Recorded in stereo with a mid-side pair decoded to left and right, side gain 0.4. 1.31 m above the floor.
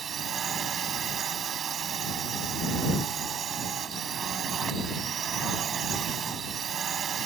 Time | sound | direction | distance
0.0 | a drone | 55° right | ?